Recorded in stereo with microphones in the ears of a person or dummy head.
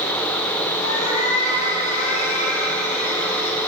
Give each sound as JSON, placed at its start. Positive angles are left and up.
{"t": 0.8, "sound": "a cat meowing", "side_deg": 80, "distance_m": 8.0}